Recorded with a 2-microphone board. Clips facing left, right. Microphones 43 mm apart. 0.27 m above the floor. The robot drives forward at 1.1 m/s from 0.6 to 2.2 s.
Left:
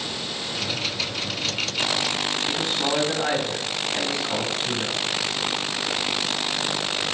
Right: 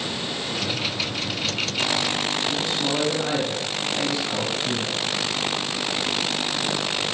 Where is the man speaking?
45° left (ahead or behind), 2 m.